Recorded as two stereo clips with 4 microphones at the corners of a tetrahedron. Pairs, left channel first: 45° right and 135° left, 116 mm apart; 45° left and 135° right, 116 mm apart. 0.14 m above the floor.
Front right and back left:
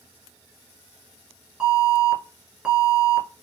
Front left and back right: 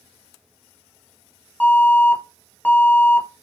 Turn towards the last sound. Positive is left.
turn(degrees=70)